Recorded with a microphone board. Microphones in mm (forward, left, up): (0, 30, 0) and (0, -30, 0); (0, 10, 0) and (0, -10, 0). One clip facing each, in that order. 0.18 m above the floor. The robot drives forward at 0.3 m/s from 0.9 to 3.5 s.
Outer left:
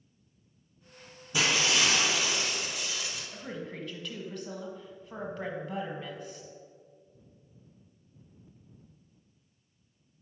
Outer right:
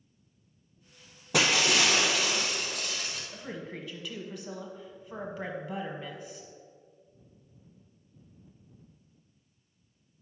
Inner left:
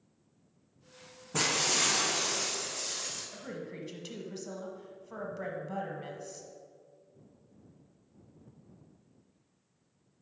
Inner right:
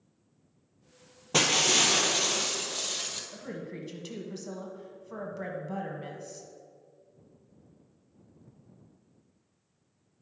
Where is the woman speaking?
5° right (ahead or behind), 1.0 m.